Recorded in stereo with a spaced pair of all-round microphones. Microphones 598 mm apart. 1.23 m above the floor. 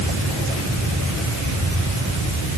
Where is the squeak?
I don't hear a squeak.